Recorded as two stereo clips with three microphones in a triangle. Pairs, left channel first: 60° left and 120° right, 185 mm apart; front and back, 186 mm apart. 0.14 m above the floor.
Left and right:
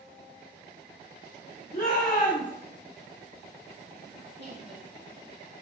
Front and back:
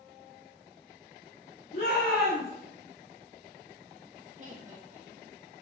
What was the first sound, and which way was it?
A shout, 15° left.